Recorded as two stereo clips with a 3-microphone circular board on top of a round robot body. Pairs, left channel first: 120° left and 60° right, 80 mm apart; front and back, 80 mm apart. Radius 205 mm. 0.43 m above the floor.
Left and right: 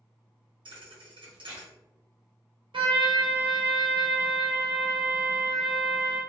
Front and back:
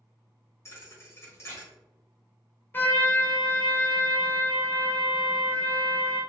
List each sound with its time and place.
0.7 s a thud: 55° right, 1.4 m
2.7 s a trumpet: 65° right, 0.8 m